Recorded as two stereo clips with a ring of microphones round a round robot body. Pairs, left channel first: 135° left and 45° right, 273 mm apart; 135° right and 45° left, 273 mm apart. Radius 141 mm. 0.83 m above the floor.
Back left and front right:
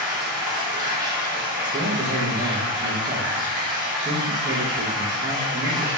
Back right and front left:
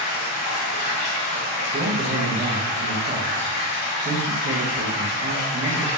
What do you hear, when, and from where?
0.0 s running water: 120° right, 1.0 m
1.7 s a man speaking: 20° left, 0.7 m